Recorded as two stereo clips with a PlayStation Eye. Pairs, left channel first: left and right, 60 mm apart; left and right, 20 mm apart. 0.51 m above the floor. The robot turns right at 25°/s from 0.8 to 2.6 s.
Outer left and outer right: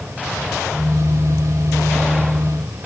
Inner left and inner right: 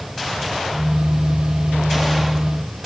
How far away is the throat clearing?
No throat clearing in this recording.